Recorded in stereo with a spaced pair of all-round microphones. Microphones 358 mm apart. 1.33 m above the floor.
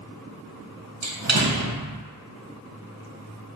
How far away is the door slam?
About 0.6 m.